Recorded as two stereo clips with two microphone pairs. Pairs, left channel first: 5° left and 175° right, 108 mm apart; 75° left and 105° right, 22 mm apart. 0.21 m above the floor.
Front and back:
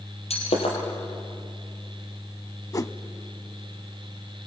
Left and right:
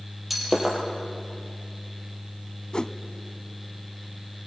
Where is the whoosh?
50° left, 0.6 m.